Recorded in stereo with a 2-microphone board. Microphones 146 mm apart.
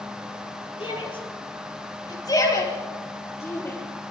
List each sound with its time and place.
0.8 s a shout: 35° left (ahead or behind), 7 m; by 3.8 s 15° left (ahead or behind), 8 m